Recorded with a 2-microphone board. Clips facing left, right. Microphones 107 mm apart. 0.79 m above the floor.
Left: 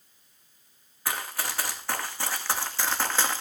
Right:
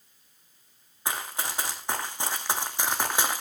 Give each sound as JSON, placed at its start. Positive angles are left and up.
{"t": 1.1, "sound": "running footsteps", "side_deg": -20, "distance_m": 2.5}